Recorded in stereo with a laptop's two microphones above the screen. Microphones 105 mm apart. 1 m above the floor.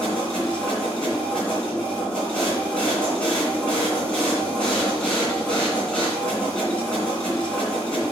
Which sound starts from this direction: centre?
A machine running, at 0.0 s.